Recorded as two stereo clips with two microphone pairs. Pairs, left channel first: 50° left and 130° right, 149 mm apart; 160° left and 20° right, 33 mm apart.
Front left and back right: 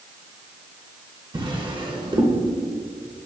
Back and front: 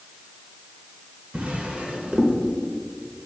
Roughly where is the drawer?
Right.